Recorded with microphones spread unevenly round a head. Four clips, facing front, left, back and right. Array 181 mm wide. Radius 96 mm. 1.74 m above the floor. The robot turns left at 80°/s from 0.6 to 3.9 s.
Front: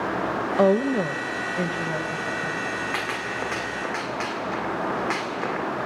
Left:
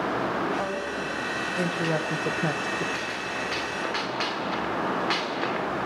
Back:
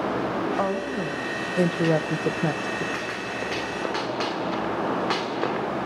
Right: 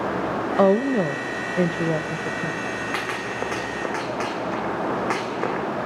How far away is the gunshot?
About 1.8 m.